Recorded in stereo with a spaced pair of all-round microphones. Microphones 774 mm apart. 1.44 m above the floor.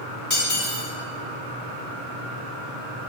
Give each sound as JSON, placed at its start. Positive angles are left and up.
{"t": 0.3, "sound": "cutlery clinking", "side_deg": 15, "distance_m": 2.5}